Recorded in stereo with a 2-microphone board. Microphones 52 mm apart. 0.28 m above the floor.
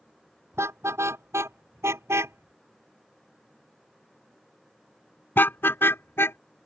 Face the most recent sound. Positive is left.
turn(degrees=50)  # may be behind; listen again after turning